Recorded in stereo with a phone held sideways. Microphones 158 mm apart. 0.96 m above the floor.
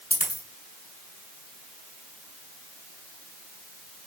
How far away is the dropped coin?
About 2 m.